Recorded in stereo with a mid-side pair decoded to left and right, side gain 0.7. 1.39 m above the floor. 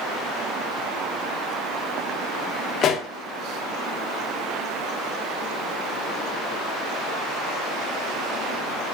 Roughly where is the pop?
Ahead left.